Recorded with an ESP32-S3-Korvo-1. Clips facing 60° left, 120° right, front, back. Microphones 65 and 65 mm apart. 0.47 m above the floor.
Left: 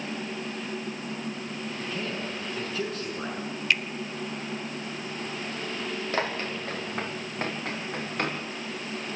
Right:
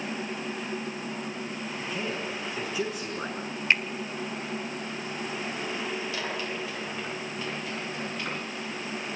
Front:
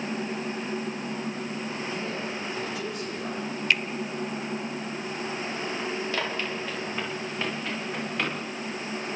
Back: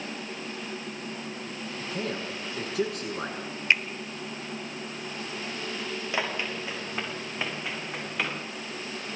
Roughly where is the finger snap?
Behind right.